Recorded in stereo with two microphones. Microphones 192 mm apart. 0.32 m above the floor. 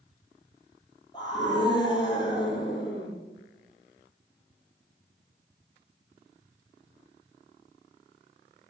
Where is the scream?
25° left (ahead or behind), 8.5 m.